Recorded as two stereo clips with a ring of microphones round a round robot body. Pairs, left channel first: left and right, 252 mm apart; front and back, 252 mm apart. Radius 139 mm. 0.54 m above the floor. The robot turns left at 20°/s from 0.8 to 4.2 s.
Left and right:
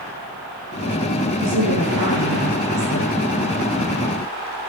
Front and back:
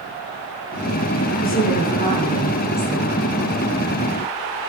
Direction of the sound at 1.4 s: 55° right.